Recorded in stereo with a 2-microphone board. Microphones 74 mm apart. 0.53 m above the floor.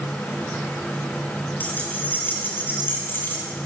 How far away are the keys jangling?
About 7.5 m.